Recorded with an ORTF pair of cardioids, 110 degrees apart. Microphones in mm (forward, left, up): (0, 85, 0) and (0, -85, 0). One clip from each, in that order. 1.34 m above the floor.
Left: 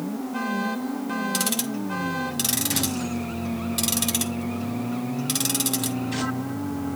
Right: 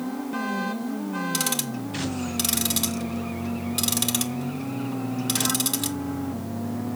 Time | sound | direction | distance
1.3 | ticking | 10° right | 1.7 m